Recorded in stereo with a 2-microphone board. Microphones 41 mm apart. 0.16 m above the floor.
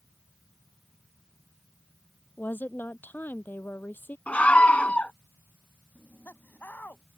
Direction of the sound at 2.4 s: 50° left (ahead or behind).